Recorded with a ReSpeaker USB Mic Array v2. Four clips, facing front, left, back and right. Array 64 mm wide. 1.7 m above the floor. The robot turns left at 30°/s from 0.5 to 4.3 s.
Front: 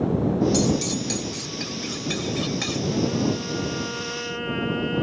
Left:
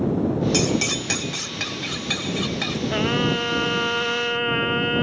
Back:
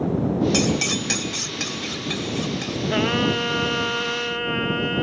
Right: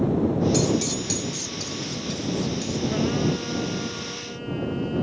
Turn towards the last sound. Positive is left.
turn(degrees=105)